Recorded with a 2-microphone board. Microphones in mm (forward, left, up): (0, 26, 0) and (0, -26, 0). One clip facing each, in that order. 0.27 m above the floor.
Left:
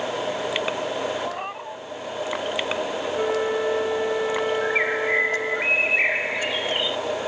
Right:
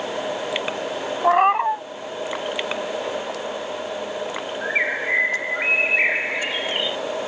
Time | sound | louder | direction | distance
1.2 | a cat meowing | right 14 dB | 65° right (ahead or behind) | ?
3.1 | a flute | left 5 dB | 70° left (ahead or behind) | ?
4.6 | a bird | even | 10° right (ahead or behind) | ?